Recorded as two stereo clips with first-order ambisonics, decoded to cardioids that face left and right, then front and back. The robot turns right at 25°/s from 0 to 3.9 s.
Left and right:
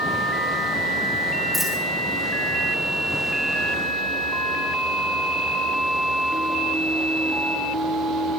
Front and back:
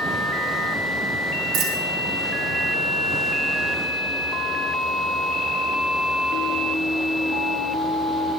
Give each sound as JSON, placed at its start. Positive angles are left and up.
{"t": 1.5, "sound": "a dropped coin", "azimuth_deg": 180, "distance_m": 2.5}